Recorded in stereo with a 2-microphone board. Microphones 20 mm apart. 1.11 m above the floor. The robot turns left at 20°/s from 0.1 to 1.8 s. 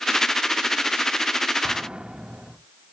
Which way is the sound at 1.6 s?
35° right (ahead or behind).